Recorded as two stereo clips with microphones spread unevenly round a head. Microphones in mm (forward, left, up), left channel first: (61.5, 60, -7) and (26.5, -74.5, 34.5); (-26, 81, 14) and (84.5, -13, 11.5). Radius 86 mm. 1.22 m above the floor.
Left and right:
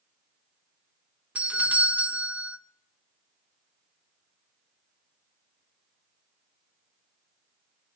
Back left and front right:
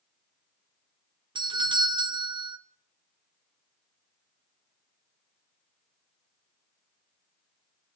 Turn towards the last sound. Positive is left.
turn(degrees=-10)